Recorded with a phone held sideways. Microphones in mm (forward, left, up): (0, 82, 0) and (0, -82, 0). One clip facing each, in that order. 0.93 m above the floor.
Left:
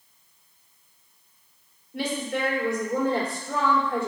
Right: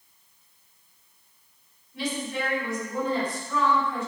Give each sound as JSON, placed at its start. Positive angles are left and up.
{"t": 1.9, "sound": "a woman speaking", "side_deg": 60, "distance_m": 3.0}